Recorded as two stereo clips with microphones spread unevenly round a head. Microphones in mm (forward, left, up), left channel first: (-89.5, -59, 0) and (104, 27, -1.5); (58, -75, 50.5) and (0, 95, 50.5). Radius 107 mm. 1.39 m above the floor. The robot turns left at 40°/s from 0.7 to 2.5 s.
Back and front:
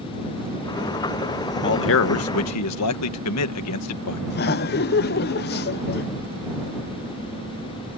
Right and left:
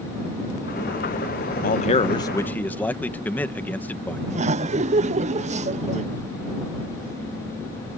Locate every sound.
1.6 s a man speaking: 120° right; by 4.2 s 150° right
4.3 s laughter: 160° left